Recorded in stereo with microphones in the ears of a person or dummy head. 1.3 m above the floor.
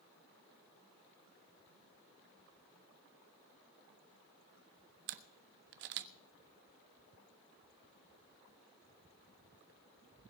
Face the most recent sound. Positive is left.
turn(degrees=-55)  # may be behind; listen again after turning